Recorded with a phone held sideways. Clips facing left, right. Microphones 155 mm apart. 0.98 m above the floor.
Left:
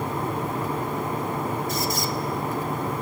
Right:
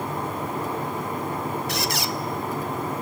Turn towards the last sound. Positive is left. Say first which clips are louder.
# left 1 dB
turn(degrees=-75)  # may be behind; listen again after turning